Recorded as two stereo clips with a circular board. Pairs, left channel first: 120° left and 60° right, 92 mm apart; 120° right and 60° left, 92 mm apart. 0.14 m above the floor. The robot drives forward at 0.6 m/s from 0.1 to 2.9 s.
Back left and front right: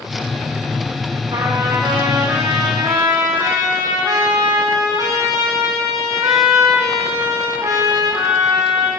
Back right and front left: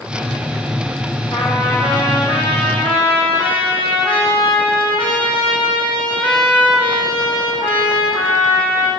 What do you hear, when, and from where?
1.3 s a trumpet: 90° right, 2.5 m; by 8.9 s 110° right, 3 m